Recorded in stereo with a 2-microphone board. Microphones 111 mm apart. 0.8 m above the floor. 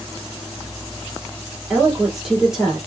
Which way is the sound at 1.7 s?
5° right (ahead or behind).